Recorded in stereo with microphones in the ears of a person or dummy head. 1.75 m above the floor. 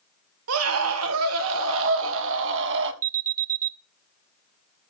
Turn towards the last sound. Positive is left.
turn(degrees=-40)  # may be behind; listen again after turning